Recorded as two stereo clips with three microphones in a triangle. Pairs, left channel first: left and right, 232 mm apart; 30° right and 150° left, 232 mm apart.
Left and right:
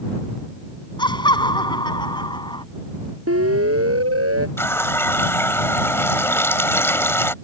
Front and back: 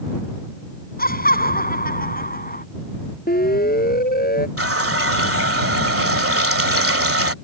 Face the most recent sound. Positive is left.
turn(degrees=170)